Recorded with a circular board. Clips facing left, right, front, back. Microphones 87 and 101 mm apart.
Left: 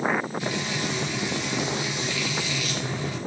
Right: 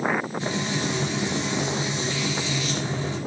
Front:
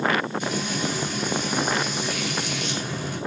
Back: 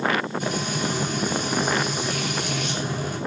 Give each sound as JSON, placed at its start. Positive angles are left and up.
{"t": 0.4, "sound": "frying", "azimuth_deg": -145, "distance_m": 3.0}